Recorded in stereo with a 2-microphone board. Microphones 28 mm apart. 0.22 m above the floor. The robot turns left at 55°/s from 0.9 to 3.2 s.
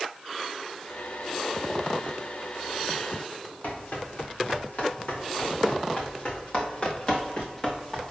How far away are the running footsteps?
About 4 m.